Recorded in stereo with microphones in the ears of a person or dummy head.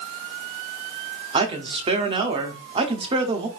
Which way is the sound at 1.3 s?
25° right (ahead or behind).